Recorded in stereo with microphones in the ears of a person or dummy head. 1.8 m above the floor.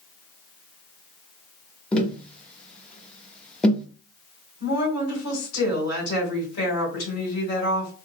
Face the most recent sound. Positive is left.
turn(degrees=85)